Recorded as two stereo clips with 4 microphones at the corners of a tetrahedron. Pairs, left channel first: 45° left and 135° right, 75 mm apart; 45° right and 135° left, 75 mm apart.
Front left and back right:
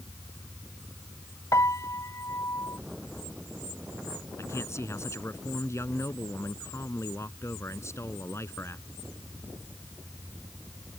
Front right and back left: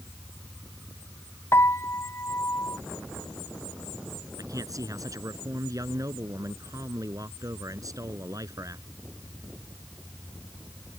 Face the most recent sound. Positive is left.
turn(degrees=95)